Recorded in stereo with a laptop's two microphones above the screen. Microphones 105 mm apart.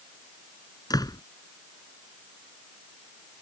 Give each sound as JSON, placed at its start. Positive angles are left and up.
{"t": 0.9, "sound": "a door slam", "side_deg": 35}